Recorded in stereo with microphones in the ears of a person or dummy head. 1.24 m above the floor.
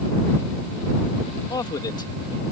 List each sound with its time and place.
1.5 s a man speaking: 20° left (ahead or behind)